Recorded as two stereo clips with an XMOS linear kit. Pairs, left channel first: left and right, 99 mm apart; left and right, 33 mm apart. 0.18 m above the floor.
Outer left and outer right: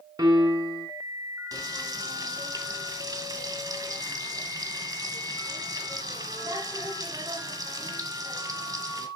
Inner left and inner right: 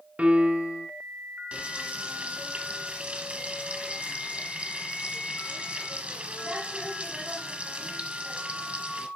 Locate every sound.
0.2 s a piano: 40° right (ahead or behind), 1.4 m
1.5 s frying: 35° right (ahead or behind), 2 m